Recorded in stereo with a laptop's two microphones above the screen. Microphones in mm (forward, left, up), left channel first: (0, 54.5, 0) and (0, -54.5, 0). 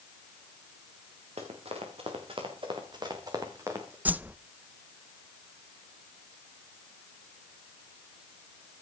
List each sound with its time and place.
1.4 s running footsteps: 75° right (ahead or behind), 4.5 m; by 4.0 s 25° right (ahead or behind), 4.5 m
4.0 s a whoosh: 15° right (ahead or behind), 0.5 m